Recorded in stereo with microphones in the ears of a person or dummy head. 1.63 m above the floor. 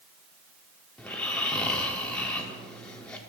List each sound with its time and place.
1.0 s snoring: 5° left (ahead or behind), 0.9 m